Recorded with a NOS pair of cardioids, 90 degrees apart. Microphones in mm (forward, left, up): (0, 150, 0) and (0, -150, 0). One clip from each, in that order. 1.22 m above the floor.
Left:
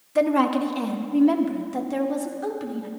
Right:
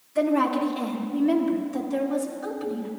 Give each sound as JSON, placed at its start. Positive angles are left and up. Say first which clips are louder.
{"t": 0.1, "sound": "a woman speaking", "louder": "left 2 dB", "azimuth_deg": 55, "distance_m": 1.6}